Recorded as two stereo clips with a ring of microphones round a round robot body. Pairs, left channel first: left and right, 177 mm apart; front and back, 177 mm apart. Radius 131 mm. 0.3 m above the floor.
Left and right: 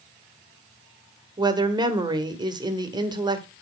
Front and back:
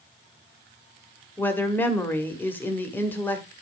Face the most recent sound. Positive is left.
turn(degrees=-65)